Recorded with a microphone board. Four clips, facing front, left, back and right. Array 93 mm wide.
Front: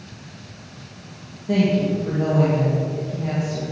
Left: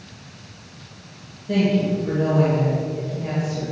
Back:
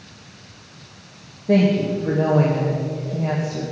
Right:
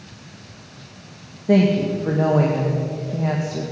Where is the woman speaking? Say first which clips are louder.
Right 3 dB, back 2 dB; 110° right, 1.8 m.